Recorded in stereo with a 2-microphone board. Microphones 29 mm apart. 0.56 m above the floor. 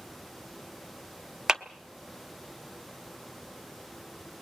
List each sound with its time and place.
1.5 s a clap: 20° right (ahead or behind), 1.0 m